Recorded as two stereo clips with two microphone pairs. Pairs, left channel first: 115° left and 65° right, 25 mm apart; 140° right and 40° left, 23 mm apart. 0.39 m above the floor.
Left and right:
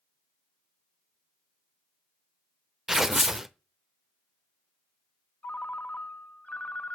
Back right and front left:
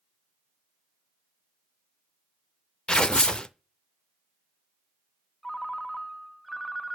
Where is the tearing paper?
135° right, 0.5 m.